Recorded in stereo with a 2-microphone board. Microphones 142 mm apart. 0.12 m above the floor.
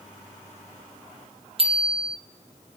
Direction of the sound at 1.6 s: 40° right (ahead or behind).